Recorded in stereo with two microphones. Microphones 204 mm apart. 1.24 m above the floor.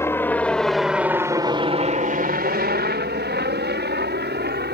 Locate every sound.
0.0 s a helicopter: 10° left (ahead or behind); by 4.8 s 50° right (ahead or behind)